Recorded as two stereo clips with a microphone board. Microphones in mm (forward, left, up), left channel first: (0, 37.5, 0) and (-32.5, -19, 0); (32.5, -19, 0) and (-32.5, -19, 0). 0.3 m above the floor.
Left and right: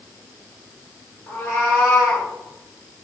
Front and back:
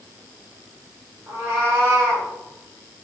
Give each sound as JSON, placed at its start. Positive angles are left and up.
{"t": 1.3, "sound": "a cat meowing", "azimuth_deg": 120, "distance_m": 1.7}